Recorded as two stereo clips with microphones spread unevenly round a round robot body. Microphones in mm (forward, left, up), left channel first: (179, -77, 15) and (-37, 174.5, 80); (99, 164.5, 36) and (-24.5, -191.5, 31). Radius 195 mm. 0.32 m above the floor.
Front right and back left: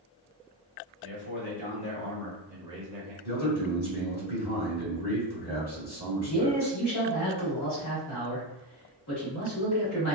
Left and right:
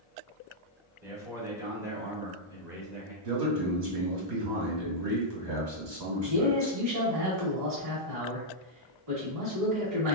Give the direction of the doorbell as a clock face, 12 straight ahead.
No doorbell in this recording.